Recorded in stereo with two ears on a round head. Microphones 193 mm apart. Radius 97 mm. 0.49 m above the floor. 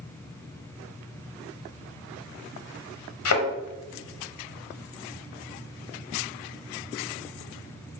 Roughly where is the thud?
Left.